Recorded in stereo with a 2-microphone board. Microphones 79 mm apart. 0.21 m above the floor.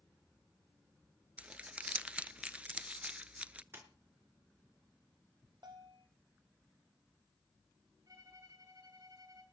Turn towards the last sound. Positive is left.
turn(degrees=-50)  # may be behind; listen again after turning